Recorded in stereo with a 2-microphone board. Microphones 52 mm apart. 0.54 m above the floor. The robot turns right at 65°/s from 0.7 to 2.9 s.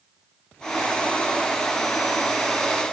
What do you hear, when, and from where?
Only background noise.